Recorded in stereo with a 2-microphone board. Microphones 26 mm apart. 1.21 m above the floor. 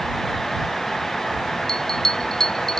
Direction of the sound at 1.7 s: 20° left (ahead or behind).